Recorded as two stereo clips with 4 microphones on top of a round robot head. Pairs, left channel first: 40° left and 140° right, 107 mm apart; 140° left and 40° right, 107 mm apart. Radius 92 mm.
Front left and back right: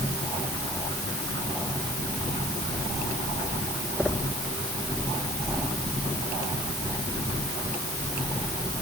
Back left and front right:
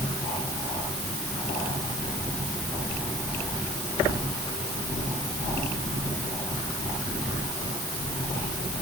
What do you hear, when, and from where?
Only background noise.